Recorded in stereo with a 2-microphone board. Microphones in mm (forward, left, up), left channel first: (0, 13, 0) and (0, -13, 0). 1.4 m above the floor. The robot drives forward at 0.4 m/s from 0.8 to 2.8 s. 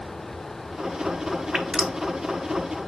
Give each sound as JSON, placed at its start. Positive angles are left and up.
{"t": 1.5, "sound": "dripping", "side_deg": -35, "distance_m": 1.0}